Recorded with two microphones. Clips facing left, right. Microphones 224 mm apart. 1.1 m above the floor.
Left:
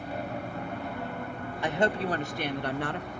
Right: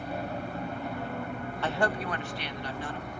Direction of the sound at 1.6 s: 15° left (ahead or behind).